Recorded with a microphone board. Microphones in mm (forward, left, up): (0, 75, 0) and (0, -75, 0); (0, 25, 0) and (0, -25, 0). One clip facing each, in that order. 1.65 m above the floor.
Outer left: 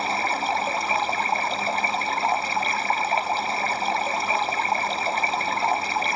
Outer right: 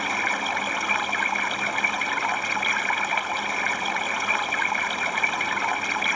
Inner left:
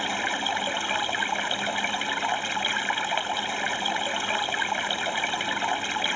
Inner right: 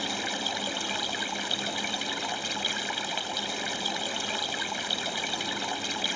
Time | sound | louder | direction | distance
0.0 | running water | outer left 3 dB, inner left 5 dB | 30° left (ahead or behind) | ?